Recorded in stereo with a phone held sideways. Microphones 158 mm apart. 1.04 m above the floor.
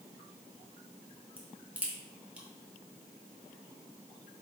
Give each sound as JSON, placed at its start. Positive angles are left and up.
{"t": 1.4, "sound": "a crack", "side_deg": -10, "distance_m": 0.8}